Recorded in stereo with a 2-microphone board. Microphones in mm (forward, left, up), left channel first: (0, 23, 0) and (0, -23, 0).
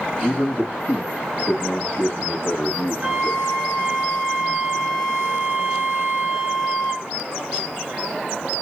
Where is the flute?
25° right (ahead or behind), 1.3 m.